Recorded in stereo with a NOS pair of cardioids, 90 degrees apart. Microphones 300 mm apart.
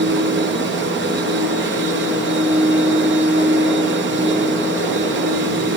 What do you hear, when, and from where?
0.0 s a machine running: 35° right, 0.9 m